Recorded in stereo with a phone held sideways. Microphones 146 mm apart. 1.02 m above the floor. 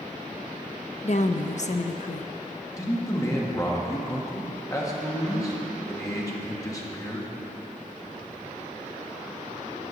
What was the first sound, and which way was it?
A woman speaking, 55° left (ahead or behind).